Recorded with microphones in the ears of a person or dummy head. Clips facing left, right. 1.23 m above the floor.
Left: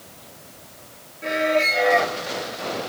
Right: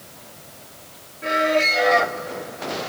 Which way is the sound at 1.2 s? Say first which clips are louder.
Right 1 dB; 5° left (ahead or behind).